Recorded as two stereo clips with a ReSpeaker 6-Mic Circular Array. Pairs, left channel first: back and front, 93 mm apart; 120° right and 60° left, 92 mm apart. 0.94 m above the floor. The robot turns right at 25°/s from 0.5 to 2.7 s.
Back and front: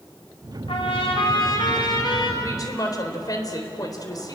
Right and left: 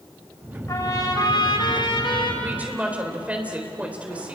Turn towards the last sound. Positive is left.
turn(degrees=135)